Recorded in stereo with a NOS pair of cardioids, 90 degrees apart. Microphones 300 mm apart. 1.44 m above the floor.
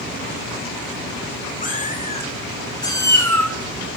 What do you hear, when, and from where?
1.6 s a cat meowing: 25° left, 3 m; by 3.5 s 5° left, 3 m